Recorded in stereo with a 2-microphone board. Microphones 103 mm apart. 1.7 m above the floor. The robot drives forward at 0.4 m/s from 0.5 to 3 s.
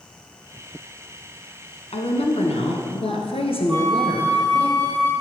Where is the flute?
40° right (ahead or behind), 1.5 m.